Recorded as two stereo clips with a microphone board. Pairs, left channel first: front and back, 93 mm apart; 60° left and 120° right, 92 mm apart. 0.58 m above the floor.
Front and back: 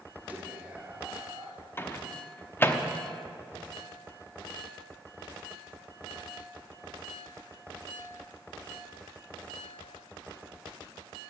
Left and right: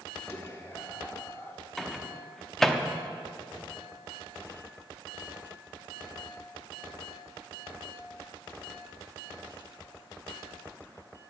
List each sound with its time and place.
0.3 s whispering: 115° left, 1.4 m
1.8 s a microwave: 20° right, 0.8 m